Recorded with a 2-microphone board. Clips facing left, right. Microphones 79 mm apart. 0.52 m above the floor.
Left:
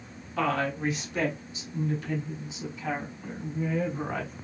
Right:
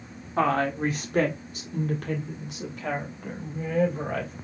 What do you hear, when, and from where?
0.4 s a woman speaking: 35° right (ahead or behind), 1.4 m; by 4.3 s 70° right (ahead or behind), 4 m